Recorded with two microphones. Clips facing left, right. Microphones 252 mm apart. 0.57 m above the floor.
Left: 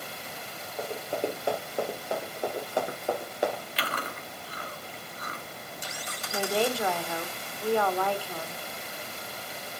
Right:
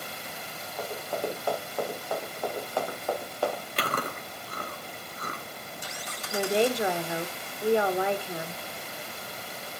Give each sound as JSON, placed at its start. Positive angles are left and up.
{"t": 0.8, "sound": "running footsteps", "side_deg": 20, "distance_m": 5.5}
{"t": 3.8, "sound": "chewing", "side_deg": -50, "distance_m": 2.0}
{"t": 6.3, "sound": "a woman speaking", "side_deg": -20, "distance_m": 1.2}